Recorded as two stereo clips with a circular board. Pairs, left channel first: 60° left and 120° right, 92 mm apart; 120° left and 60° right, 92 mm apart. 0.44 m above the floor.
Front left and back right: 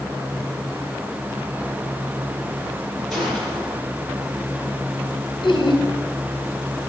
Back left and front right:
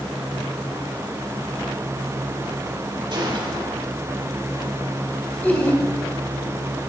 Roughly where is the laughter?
Ahead left.